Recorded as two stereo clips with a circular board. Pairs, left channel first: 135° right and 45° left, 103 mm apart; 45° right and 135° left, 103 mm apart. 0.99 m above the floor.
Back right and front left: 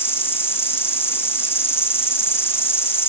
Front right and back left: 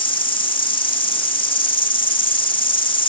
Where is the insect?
70° right, 3 m.